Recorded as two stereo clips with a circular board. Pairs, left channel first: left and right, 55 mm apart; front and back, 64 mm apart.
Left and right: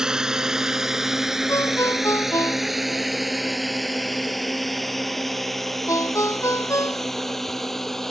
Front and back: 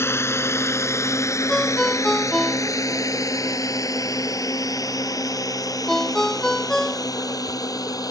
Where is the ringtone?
85° left.